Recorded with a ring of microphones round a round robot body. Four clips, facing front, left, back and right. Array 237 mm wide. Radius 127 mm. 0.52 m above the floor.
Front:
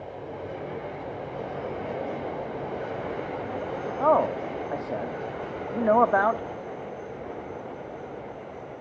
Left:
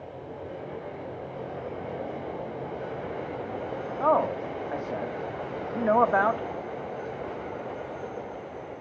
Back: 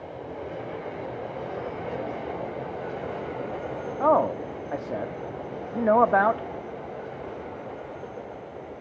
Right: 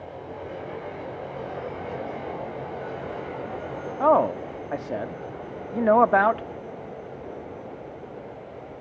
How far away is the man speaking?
About 1.0 m.